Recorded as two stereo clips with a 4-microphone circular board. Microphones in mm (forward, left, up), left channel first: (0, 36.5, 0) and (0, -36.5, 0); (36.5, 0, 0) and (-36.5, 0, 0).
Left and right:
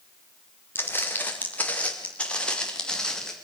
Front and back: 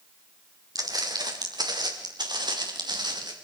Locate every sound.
0.8 s footsteps: 150° left, 3.5 m; by 3.3 s 170° left, 4.5 m